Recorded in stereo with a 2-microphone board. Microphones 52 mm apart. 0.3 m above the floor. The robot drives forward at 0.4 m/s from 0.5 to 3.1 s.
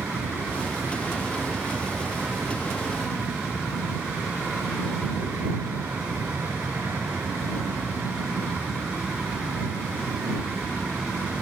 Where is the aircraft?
55° right (ahead or behind).